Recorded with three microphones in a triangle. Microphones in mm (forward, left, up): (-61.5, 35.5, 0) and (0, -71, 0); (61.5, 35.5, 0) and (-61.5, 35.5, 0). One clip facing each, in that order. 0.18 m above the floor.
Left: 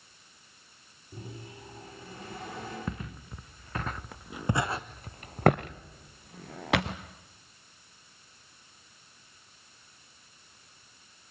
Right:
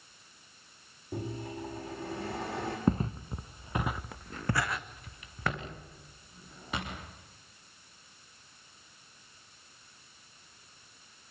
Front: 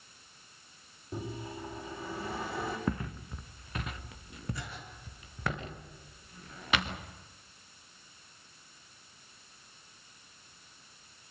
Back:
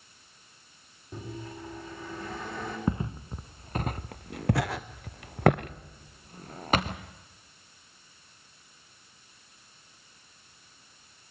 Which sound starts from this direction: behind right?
Footsteps, at 2.9 s.